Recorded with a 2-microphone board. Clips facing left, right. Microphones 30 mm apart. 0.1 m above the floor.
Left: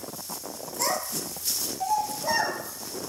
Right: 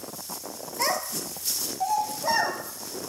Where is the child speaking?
30° right (ahead or behind), 0.9 m; by 3.1 s 25° right (ahead or behind), 2.5 m.